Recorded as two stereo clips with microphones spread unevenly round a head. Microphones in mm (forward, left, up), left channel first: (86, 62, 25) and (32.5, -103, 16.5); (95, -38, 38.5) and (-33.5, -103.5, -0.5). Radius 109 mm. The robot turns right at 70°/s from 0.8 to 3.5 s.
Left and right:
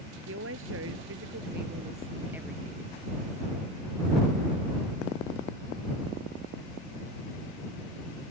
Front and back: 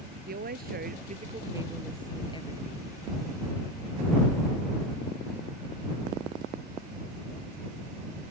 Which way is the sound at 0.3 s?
135° right.